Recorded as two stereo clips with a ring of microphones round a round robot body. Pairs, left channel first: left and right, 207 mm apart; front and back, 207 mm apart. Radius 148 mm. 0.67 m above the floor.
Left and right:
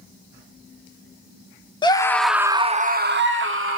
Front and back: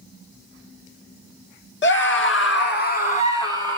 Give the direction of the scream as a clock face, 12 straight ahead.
11 o'clock.